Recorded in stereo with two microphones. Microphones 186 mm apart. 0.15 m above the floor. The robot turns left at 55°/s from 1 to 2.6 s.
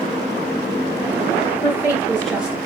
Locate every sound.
1.6 s a woman speaking: 30° left (ahead or behind), 2 m; by 2.7 s 15° right (ahead or behind), 2 m